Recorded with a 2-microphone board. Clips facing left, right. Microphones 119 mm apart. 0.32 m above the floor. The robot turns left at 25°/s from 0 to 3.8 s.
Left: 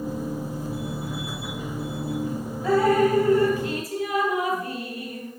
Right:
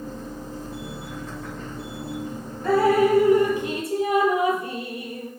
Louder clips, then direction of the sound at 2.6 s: Right 1 dB; 5° left (ahead or behind).